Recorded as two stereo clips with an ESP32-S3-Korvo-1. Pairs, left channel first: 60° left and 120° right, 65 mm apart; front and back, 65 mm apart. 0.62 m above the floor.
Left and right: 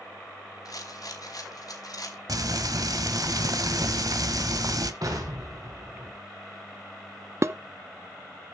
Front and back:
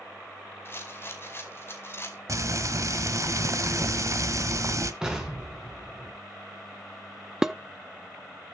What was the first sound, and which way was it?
A rattle, 50° left.